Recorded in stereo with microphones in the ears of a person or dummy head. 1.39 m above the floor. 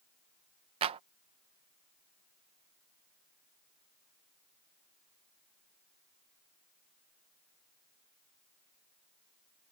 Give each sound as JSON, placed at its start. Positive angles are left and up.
{"t": 0.8, "sound": "a clap", "side_deg": -30}